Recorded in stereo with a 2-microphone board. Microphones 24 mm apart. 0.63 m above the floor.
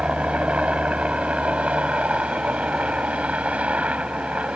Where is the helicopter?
60° right (ahead or behind); by 4.6 s 70° right (ahead or behind).